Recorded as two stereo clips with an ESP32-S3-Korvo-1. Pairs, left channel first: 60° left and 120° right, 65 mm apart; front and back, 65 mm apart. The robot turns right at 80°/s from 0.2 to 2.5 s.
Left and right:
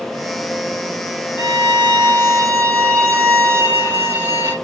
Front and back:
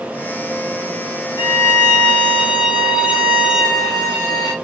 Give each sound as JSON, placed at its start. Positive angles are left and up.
{"t": 1.4, "sound": "a violin", "azimuth_deg": 15, "distance_m": 2.0}